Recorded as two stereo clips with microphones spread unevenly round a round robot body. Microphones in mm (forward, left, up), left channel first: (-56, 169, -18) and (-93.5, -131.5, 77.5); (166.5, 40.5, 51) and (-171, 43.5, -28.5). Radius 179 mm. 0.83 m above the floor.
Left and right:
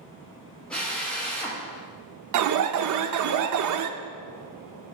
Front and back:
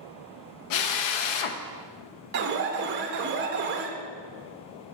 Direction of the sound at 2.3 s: 140° right.